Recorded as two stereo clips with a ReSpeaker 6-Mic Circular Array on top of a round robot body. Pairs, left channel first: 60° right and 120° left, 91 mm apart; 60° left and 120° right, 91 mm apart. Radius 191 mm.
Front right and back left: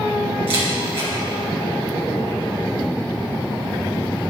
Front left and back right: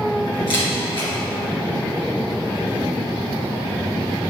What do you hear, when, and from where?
0.5 s a camera shutter: 95° left, 2.5 m